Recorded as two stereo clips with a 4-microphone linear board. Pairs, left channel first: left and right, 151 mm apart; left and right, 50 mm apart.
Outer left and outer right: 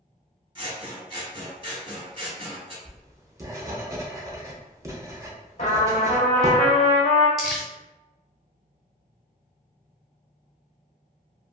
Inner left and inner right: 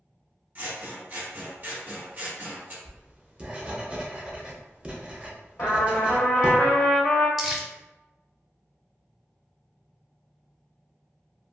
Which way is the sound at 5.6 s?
55° left (ahead or behind).